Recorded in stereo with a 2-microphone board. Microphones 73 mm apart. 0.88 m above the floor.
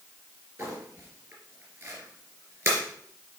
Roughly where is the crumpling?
Right.